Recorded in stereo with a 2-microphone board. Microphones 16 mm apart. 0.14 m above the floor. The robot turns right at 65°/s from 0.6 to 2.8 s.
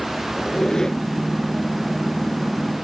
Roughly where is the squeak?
Left.